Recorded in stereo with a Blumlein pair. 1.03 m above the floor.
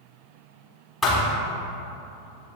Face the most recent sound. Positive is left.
turn(degrees=10)